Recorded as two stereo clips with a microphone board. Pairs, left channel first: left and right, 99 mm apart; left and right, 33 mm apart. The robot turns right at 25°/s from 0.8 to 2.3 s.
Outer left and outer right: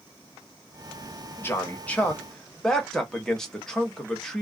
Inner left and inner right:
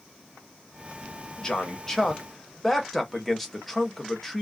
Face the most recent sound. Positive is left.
turn(degrees=5)  # may be behind; listen again after turning